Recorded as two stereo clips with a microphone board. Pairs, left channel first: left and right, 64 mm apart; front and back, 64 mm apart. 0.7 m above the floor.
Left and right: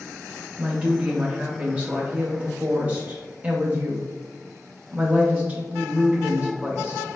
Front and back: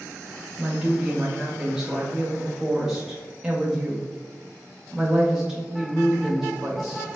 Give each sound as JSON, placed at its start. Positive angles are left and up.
{"t": 0.6, "sound": "a woman speaking", "azimuth_deg": -110, "distance_m": 0.7}